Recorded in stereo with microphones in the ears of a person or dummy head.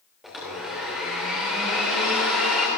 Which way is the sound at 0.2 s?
Centre (ahead or behind).